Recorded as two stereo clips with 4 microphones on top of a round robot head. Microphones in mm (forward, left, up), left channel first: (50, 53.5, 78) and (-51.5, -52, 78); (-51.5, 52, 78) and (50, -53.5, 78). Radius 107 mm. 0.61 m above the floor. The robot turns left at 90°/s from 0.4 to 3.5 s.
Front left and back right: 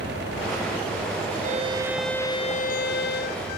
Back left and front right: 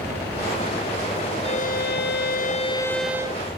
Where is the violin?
170° right; by 3.5 s 5° left.